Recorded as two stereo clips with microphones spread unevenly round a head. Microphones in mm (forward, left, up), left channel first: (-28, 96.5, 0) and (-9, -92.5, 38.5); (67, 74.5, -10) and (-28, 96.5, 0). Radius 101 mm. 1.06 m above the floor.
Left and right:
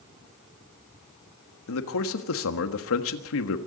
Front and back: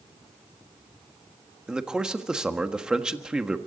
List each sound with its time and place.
1.7 s a man speaking: 85° left, 1.4 m